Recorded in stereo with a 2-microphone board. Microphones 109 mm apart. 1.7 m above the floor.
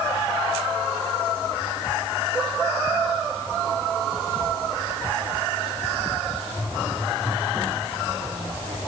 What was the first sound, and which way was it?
Only background noise.